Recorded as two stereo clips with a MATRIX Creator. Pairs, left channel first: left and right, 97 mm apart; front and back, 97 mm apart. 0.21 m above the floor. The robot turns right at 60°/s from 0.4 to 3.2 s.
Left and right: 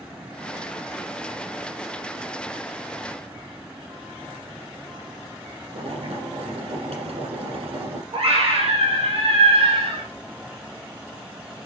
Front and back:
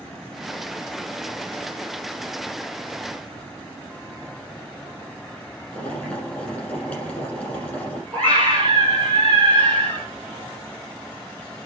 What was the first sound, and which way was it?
Boiling, 75° right.